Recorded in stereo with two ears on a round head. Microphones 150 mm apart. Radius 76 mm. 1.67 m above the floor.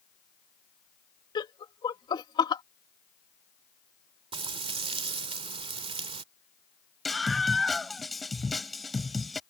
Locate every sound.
1.4 s laughter: 25° left (ahead or behind)
4.3 s frying: 35° right (ahead or behind)
7.0 s a scream: centre (ahead or behind)